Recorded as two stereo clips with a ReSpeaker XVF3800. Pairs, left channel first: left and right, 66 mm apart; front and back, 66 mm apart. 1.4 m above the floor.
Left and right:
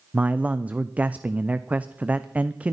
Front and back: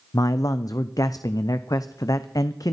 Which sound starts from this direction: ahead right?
A man speaking, at 0.1 s.